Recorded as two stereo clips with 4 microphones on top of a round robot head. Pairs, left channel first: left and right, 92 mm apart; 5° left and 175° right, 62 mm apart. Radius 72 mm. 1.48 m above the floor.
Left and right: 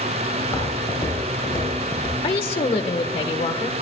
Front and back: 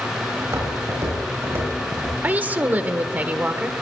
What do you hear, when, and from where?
0.4 s footsteps: 145° left, 6.5 m; by 2.1 s 135° left, 7.5 m
2.2 s a woman speaking: 120° left, 1.3 m